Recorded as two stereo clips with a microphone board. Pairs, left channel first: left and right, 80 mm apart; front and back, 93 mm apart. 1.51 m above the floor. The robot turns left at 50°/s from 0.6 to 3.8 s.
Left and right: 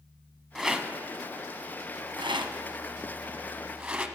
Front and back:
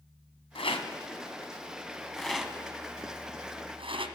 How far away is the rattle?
About 0.9 m.